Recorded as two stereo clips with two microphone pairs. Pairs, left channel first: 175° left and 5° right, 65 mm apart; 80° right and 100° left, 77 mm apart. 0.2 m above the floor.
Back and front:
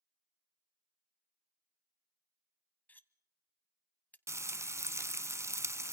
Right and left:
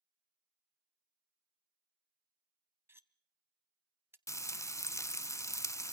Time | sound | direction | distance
2.9 | cutlery clinking | 130° left | 0.7 m
4.3 | frying | 35° right | 0.6 m